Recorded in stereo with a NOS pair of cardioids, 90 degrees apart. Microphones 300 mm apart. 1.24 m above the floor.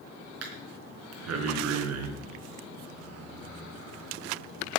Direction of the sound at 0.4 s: 60° right.